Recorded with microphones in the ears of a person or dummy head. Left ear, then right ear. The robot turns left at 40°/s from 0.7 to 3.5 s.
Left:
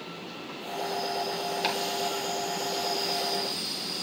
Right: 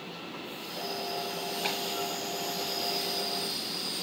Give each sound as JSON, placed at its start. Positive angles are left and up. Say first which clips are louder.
{"t": 1.6, "sound": "chopping", "louder": "left 3 dB", "side_deg": 55, "distance_m": 4.5}